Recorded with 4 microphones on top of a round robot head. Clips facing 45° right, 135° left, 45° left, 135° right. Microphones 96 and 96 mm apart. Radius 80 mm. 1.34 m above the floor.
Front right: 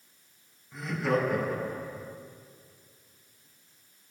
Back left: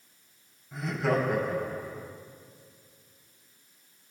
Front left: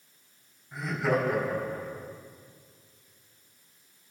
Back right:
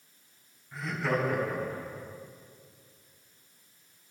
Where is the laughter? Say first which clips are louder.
Back left 1 dB, front left 3 dB; 120° left, 4.5 m.